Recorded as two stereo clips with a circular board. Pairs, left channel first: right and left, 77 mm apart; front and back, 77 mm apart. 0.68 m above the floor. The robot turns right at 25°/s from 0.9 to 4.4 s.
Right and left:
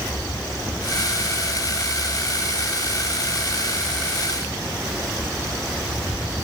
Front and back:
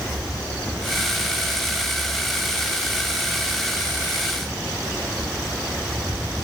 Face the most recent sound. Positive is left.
No sound to turn to.